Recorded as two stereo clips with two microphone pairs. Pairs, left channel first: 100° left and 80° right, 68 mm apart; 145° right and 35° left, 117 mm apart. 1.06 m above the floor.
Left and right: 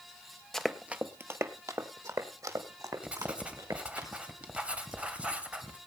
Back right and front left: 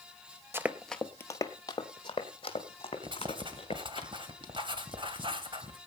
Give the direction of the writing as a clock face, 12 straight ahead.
12 o'clock.